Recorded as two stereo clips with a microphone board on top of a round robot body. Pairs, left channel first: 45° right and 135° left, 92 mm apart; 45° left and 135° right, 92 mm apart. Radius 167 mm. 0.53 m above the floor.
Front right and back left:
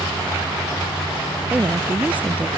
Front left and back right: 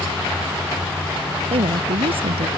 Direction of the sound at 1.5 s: 150° right.